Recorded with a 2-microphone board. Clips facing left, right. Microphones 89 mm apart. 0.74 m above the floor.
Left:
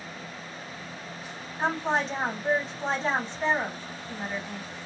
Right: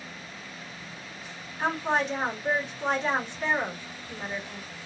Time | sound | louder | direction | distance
1.6 | a woman speaking | even | 35° left (ahead or behind) | 1.6 m